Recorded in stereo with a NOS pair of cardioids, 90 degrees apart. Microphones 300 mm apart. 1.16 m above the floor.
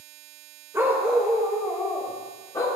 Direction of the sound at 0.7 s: 10° right.